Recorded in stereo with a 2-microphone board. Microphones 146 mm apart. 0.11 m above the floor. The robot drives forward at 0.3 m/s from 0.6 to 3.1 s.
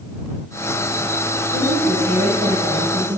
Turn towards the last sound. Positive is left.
turn(degrees=-65)  # may be behind; listen again after turning